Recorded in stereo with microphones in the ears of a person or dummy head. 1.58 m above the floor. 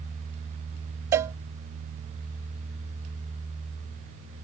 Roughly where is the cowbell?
Centre.